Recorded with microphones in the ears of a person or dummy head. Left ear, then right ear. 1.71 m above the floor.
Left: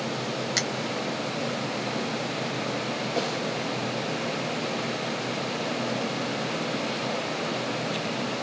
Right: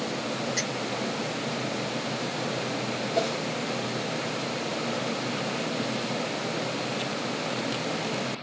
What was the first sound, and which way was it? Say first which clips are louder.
A finger snap: left 5 dB; 35° left (ahead or behind).